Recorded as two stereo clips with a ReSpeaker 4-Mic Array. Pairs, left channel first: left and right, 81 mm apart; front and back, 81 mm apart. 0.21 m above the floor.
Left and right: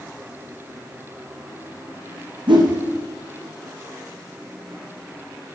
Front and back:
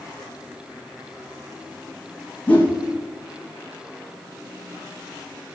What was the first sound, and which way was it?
A whoosh, 70° right.